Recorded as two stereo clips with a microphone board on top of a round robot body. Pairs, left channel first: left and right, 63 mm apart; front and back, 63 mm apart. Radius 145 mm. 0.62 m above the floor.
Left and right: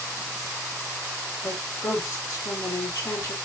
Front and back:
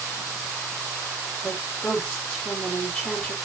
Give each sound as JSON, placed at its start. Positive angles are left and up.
{"t": 1.4, "sound": "a woman speaking", "azimuth_deg": 80, "distance_m": 2.0}